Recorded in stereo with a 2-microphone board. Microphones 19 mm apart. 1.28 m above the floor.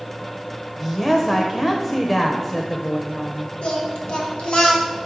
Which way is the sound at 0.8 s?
25° left (ahead or behind).